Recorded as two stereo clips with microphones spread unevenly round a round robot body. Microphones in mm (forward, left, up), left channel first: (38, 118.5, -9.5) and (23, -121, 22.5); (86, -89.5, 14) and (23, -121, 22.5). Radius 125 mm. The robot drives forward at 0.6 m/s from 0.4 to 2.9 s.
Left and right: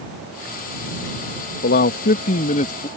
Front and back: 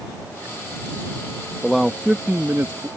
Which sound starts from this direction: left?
A man speaking, at 1.6 s.